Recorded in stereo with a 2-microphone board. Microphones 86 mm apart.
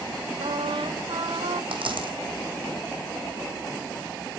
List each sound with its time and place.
0.4 s a trumpet: 75° right (ahead or behind), 1.2 m
1.7 s a dropped coin: 80° right, 2.5 m